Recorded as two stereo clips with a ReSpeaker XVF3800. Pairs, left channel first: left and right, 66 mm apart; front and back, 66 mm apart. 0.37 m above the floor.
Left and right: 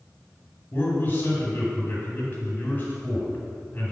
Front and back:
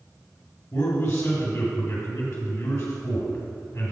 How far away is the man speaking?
About 2 m.